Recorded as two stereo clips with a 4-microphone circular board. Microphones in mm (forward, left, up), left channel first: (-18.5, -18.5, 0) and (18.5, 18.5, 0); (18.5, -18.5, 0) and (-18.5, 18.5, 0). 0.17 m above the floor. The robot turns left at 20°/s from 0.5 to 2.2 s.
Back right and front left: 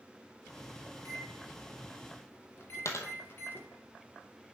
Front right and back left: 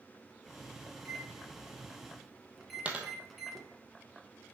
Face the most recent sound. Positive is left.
turn(degrees=-160)